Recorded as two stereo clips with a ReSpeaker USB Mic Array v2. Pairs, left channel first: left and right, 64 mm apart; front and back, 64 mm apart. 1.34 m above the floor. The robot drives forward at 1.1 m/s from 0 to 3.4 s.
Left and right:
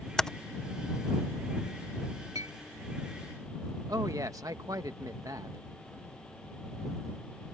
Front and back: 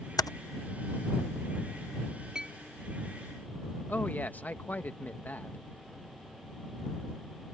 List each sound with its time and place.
0.2 s typing on a keyboard: 10° left; by 0.3 s 15° left
2.4 s a clink: 100° right; by 2.6 s 110° right
3.9 s a man speaking: 60° right